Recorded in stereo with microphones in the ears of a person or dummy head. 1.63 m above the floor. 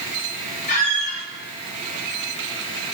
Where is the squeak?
35° left (ahead or behind), 1.1 m.